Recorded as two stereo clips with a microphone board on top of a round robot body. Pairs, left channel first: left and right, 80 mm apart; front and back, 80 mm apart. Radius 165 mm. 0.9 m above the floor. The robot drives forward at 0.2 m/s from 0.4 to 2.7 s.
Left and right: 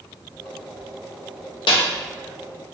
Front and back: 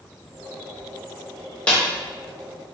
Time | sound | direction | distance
1.7 | a snare drum | 75° left | 0.6 m